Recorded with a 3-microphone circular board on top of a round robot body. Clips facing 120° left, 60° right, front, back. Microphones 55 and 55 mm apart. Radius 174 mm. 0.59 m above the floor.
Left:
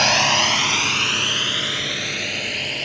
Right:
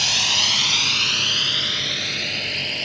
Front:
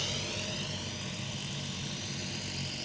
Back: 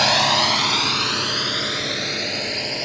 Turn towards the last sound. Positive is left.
turn(degrees=-155)